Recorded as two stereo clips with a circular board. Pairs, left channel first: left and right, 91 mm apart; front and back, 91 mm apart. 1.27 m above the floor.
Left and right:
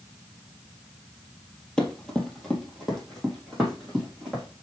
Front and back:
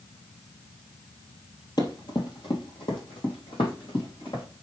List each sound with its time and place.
1.8 s running footsteps: 10° left, 1.8 m; by 4.4 s straight ahead, 5 m